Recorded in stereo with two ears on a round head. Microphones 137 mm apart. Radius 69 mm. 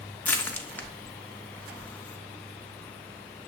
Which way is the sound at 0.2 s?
10° left (ahead or behind).